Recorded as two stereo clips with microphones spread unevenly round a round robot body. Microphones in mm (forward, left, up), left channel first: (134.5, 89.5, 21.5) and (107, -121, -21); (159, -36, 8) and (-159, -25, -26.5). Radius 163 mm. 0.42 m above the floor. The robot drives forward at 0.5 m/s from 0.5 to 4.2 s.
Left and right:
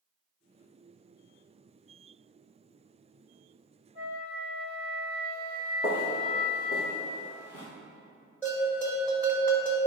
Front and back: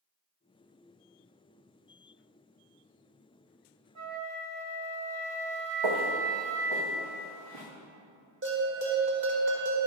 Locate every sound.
4.0 s a flute: 130° left, 0.7 m; by 6.8 s 140° left, 0.8 m
5.8 s footsteps: 160° left, 2 m; by 7.7 s 155° left, 3.5 m
8.4 s a bell: 175° left, 1.7 m